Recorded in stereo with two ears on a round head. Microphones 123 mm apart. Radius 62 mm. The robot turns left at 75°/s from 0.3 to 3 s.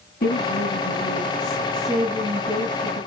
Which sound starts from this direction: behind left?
A woman speaking, at 0.2 s.